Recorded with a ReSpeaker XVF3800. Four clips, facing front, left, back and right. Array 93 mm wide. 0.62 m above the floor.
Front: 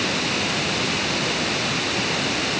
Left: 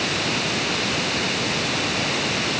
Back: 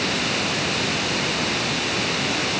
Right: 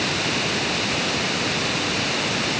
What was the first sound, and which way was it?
Only background noise.